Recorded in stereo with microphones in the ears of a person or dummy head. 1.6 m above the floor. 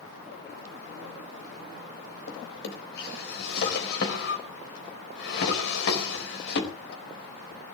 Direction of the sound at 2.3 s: 65° left (ahead or behind).